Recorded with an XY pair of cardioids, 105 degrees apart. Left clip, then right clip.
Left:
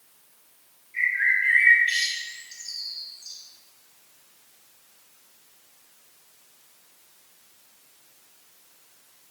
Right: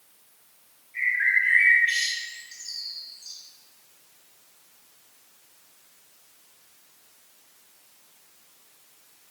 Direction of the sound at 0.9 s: 15° left.